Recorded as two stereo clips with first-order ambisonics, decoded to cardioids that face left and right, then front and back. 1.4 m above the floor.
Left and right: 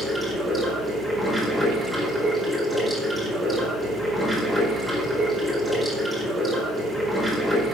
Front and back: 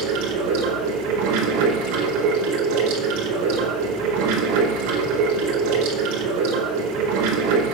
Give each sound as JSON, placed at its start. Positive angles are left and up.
{"t": 0.0, "sound": "running water", "azimuth_deg": -175, "distance_m": 5.0}